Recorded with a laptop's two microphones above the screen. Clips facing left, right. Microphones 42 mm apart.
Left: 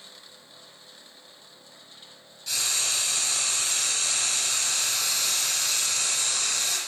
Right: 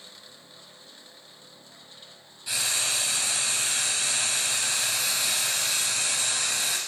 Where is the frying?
20° right (ahead or behind), 2 m.